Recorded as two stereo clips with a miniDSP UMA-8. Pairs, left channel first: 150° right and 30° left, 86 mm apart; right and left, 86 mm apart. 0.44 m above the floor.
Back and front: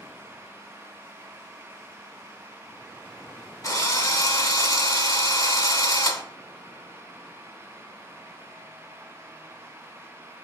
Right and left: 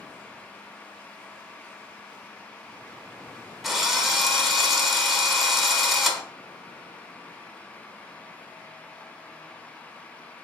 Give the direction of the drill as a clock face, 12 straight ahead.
6 o'clock.